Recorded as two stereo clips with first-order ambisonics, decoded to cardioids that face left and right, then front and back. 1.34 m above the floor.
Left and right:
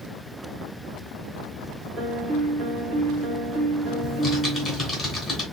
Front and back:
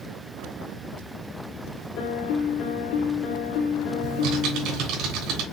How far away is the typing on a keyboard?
About 2.5 m.